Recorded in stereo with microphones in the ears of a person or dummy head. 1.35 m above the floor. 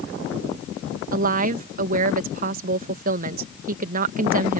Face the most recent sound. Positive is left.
turn(degrees=-50)  # may be behind; listen again after turning